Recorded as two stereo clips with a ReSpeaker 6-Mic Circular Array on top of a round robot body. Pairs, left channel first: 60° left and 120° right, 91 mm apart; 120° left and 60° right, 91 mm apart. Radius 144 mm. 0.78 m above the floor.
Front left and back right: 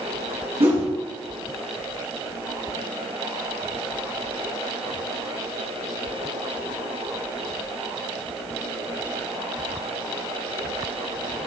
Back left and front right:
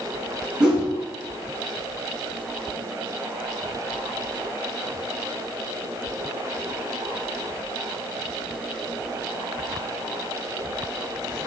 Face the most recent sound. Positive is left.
turn(degrees=-140)